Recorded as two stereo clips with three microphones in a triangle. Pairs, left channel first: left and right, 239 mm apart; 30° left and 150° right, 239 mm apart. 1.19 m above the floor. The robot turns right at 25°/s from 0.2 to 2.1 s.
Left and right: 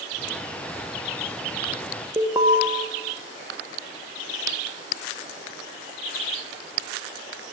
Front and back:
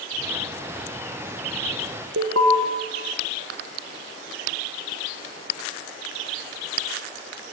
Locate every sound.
2.2 s an alarm: 165° right, 1.1 m